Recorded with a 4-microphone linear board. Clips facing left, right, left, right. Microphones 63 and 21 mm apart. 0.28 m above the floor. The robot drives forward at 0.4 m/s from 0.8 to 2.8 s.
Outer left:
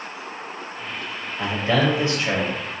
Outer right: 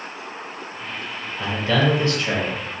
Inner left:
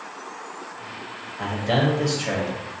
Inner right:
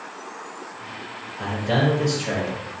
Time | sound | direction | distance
1.4 | a man speaking | 20° left (ahead or behind) | 1.2 m